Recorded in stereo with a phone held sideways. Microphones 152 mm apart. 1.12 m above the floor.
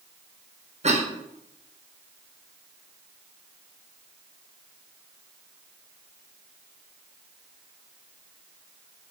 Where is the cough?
45° right (ahead or behind), 1.3 m.